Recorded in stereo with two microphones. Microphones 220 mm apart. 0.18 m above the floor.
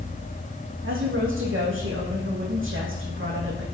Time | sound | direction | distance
0.8 | a woman speaking | 70° right (ahead or behind) | 8 m